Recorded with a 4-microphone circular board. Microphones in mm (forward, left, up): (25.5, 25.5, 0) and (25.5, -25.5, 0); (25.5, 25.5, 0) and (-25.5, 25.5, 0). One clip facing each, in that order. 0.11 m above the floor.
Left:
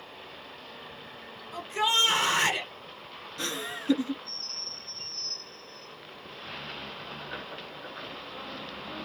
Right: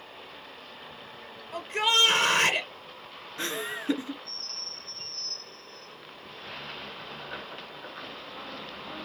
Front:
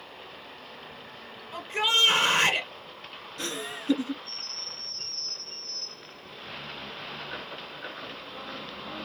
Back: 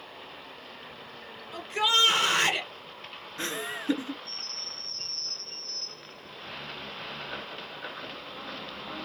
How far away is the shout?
About 1.9 m.